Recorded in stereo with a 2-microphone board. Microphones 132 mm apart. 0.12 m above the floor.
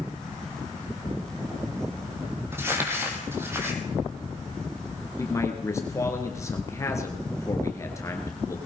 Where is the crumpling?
15° right (ahead or behind), 3 m.